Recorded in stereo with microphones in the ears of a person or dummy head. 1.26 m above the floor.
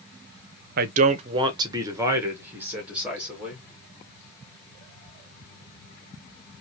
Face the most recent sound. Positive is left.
turn(degrees=-5)  # may be behind; listen again after turning